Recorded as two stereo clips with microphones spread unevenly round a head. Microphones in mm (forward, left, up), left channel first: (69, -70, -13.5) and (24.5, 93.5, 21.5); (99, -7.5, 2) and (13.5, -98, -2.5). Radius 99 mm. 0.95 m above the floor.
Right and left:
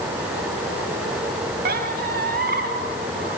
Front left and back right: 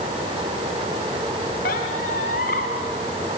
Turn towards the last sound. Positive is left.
turn(degrees=75)